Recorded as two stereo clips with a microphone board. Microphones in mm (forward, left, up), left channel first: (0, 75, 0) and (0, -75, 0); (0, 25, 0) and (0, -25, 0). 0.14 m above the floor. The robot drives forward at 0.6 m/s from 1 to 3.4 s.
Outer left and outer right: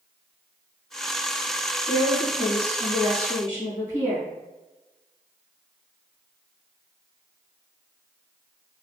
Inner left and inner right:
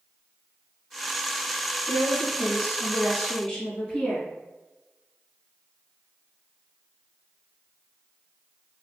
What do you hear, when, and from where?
1.9 s a woman speaking: 20° left (ahead or behind), 1.8 m; by 4.2 s 15° left (ahead or behind), 2.5 m